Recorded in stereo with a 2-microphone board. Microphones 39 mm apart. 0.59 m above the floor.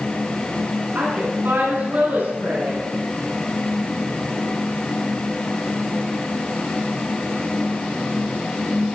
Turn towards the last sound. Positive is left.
turn(degrees=-60)  # may be behind; listen again after turning